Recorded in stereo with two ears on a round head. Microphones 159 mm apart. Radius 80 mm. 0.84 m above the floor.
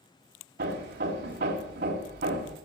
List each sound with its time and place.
0.6 s hammering: 60° right (ahead or behind), 1.5 m